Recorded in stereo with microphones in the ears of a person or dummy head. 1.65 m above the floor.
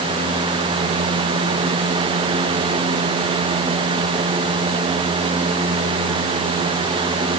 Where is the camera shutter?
I don't hear a camera shutter.